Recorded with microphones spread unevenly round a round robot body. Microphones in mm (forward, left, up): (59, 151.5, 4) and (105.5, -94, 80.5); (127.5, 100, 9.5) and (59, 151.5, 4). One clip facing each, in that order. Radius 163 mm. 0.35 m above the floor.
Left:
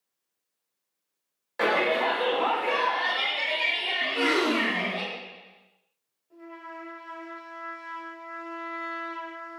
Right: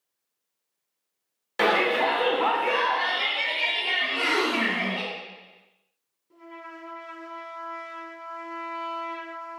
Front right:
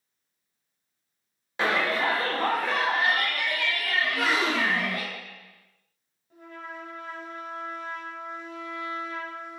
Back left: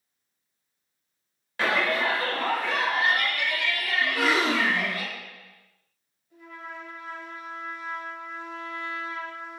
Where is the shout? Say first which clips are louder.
Right 2 dB, even; 85° right, 1.0 m; by 5.0 s 10° left, 3 m.